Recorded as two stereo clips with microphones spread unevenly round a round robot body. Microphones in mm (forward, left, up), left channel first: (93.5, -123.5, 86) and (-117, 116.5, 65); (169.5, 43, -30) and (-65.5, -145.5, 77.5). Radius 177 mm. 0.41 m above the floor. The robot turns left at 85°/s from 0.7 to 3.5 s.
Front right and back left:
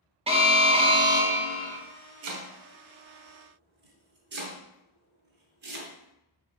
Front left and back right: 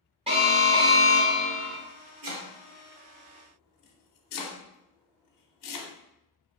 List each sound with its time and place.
0.3 s an alarm: 120° left, 0.8 m; by 1.8 s 30° left, 0.8 m
2.2 s chopping: straight behind, 0.8 m; by 5.9 s 70° left, 0.8 m